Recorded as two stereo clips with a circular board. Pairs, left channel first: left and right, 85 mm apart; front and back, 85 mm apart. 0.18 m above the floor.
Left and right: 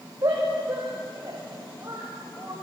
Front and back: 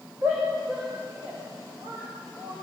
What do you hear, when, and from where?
0.2 s a shout: 140° right, 7.5 m; by 2.5 s 150° right, 8.5 m